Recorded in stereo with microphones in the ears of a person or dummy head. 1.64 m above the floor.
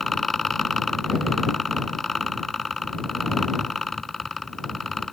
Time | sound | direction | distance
0.0 | a fan | centre (ahead or behind) | ?